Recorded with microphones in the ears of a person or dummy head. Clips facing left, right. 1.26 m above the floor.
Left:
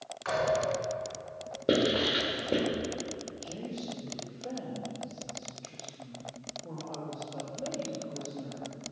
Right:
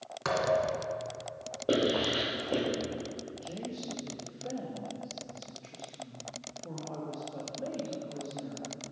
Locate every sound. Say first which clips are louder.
0.2 s a thud: even; 70° right (ahead or behind), 2.5 m
1.7 s writing: left 1 dB; 30° left (ahead or behind), 2.5 m
3.4 s a woman speaking: left 1 dB; 5° right (ahead or behind), 1.6 m